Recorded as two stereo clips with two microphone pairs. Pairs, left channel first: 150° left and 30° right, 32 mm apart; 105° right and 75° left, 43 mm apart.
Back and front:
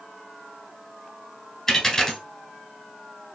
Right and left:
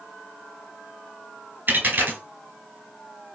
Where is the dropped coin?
85° left, 0.9 m.